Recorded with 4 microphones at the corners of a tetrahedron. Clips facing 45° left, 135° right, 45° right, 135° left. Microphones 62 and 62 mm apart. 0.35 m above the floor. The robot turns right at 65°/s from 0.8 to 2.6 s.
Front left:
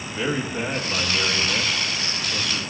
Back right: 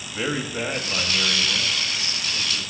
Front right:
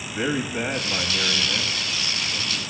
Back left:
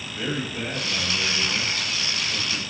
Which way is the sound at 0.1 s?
55° right.